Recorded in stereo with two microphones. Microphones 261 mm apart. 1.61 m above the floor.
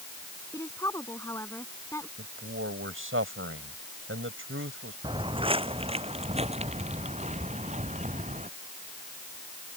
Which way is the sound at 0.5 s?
10° left (ahead or behind).